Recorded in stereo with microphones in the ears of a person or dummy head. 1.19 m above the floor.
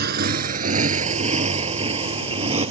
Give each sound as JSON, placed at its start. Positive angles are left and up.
{"t": 0.0, "sound": "a motorcycle", "side_deg": -50}